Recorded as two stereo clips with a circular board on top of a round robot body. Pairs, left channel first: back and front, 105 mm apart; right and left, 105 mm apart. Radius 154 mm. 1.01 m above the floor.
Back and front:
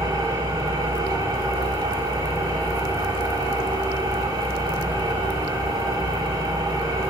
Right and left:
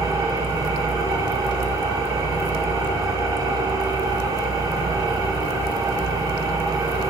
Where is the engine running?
45° left, 5.5 m.